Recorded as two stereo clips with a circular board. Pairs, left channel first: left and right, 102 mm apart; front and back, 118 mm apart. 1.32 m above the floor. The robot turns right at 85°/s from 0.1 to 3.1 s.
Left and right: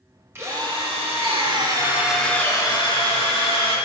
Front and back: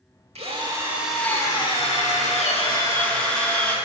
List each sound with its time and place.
0.3 s a drill: 155° right, 1.8 m; by 3.8 s 80° left, 1.8 m